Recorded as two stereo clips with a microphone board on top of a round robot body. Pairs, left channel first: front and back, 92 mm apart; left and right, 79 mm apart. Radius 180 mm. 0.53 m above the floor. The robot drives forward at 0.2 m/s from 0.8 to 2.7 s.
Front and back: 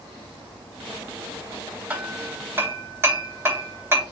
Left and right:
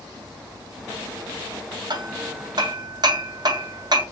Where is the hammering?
105° right, 1.0 m; by 4.0 s 115° right, 1.0 m.